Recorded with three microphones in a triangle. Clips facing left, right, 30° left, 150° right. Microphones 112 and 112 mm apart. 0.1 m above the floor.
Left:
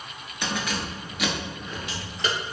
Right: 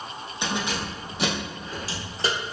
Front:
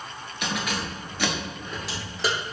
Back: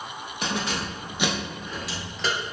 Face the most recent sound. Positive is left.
turn(degrees=-50)